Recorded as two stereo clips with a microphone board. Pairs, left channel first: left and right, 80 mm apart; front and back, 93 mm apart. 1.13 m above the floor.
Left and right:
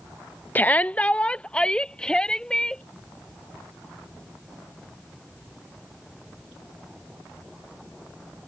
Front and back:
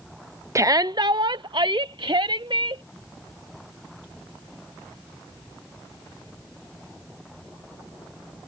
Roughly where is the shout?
Behind left.